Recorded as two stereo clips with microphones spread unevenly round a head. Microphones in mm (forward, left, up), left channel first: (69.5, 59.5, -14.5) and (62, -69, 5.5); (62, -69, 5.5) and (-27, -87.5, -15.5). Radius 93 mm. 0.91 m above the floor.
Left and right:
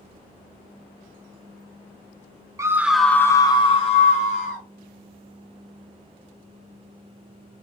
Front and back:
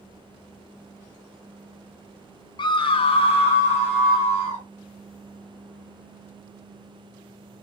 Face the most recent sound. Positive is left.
turn(degrees=75)